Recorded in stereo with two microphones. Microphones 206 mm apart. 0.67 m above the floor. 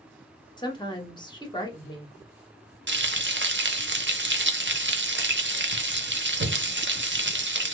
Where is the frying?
60° right (ahead or behind), 0.7 m.